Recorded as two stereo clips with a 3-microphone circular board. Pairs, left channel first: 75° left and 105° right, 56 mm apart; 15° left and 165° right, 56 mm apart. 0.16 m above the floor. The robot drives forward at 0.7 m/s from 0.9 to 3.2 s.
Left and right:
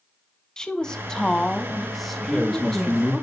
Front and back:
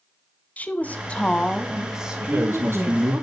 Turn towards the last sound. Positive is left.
turn(degrees=155)